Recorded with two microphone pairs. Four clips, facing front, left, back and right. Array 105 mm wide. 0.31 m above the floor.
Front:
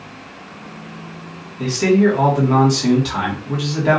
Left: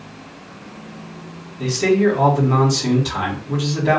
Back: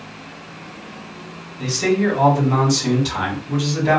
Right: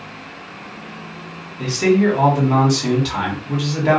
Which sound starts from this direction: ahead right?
A man speaking, at 1.6 s.